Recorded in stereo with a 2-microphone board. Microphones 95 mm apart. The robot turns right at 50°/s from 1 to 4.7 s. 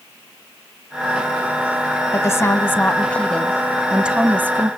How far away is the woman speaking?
About 1.1 m.